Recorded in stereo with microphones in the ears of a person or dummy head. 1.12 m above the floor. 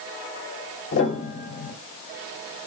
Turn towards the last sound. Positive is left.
turn(degrees=65)  # may be behind; listen again after turning